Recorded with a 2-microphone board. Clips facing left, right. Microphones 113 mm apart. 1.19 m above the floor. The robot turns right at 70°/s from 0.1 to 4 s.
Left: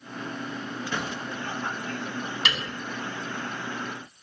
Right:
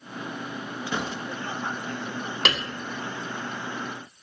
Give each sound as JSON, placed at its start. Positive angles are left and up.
{"t": 0.9, "sound": "a gunshot", "side_deg": -10, "distance_m": 1.9}
{"t": 2.5, "sound": "a piano", "side_deg": -85, "distance_m": 1.4}